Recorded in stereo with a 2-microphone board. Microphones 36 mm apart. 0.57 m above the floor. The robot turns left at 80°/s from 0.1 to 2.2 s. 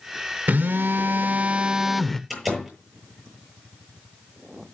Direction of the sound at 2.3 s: Centre (ahead or behind).